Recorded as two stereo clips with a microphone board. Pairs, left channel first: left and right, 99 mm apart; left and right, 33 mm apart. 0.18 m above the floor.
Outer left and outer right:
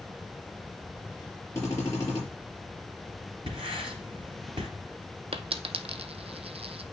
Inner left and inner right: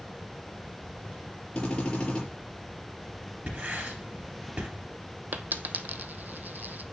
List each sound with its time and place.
1.6 s a drill: 25° left (ahead or behind), 5 m
3.5 s writing: 55° right (ahead or behind), 3 m
5.3 s a dropped coin: 70° right (ahead or behind), 0.6 m